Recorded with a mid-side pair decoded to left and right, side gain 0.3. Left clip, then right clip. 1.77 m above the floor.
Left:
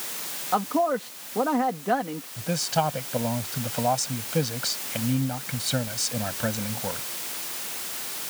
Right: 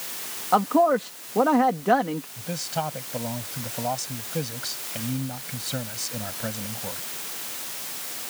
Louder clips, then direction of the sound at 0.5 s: Right 4 dB; 50° right.